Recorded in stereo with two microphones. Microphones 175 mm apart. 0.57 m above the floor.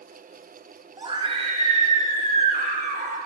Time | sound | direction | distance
1.0 | a scream | 25° right (ahead or behind) | 1.5 m